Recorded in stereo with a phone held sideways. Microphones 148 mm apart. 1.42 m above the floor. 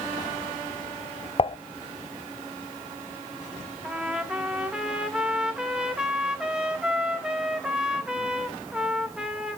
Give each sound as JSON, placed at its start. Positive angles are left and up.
{"t": 1.4, "sound": "dishes clattering", "side_deg": 40, "distance_m": 0.5}
{"t": 3.8, "sound": "a trumpet", "side_deg": -5, "distance_m": 1.5}